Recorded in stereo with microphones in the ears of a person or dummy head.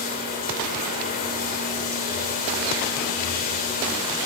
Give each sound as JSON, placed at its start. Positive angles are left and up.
{"t": 0.0, "sound": "running water", "side_deg": 45, "distance_m": 5.5}